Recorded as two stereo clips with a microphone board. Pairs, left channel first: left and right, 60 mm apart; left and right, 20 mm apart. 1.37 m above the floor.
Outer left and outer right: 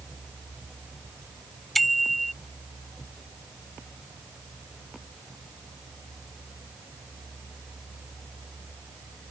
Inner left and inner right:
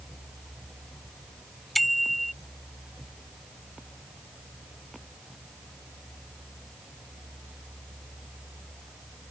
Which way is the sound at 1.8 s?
Centre (ahead or behind).